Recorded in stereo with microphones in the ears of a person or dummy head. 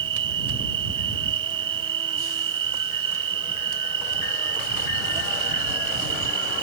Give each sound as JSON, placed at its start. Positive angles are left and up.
{"t": 0.0, "sound": "an insect", "side_deg": -25}